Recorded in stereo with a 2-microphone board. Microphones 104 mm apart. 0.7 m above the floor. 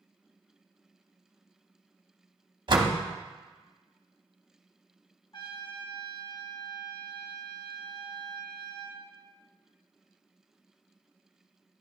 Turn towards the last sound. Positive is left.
turn(degrees=45)  # may be behind; listen again after turning